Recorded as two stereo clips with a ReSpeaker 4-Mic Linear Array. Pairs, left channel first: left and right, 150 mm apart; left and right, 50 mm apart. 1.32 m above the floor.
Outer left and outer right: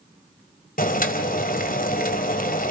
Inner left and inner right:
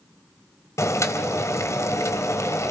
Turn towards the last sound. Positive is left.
turn(degrees=70)  # may be behind; listen again after turning